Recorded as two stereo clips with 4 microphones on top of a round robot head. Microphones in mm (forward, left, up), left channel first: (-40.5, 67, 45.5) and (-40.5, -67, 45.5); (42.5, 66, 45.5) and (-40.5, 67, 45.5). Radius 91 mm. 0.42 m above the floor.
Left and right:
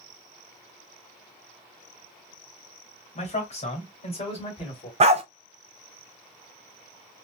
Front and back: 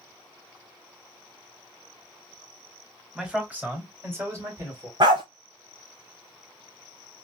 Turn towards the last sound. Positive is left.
turn(degrees=-130)